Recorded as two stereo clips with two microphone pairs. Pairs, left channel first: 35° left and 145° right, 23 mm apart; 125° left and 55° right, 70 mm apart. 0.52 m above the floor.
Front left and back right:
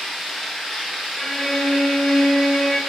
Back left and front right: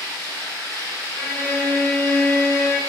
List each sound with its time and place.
0.0 s running water: 35° right, 1.5 m
1.2 s a violin: 55° right, 1.1 m